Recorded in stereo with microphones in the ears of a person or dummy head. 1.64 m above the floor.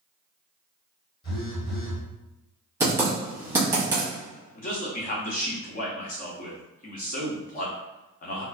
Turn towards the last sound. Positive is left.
turn(degrees=45)  # may be behind; listen again after turning